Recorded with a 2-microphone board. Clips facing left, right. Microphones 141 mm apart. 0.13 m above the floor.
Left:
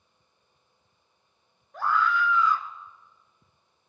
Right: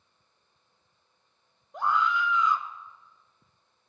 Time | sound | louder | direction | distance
1.7 | a scream | left 1 dB | 20° right (ahead or behind) | 1.5 m